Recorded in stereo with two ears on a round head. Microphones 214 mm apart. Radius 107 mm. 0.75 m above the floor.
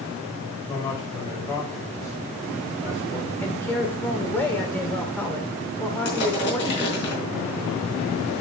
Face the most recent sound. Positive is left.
turn(degrees=50)  # may be behind; listen again after turning